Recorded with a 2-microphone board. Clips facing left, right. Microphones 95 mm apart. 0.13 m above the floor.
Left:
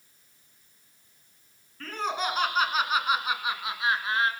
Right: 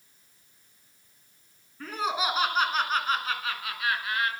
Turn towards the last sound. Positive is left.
turn(degrees=30)  # may be behind; listen again after turning